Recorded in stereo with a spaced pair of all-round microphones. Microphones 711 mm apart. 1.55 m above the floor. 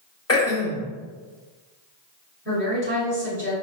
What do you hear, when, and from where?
0.3 s throat clearing: 20° left (ahead or behind), 0.8 m
2.5 s a woman speaking: 15° right (ahead or behind), 1.9 m